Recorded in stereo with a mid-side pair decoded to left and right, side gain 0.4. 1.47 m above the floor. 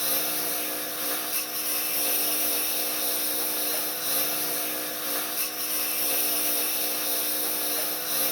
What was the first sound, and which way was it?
A lawn mower, 10° left.